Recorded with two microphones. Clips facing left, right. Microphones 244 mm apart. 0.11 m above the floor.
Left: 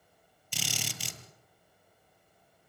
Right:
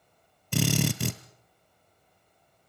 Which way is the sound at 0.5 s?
65° right (ahead or behind).